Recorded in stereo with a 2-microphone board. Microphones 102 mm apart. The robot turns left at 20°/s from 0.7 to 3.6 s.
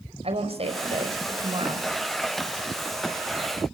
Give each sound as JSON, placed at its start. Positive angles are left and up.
{"t": 0.2, "sound": "a woman speaking", "side_deg": -65, "distance_m": 4.5}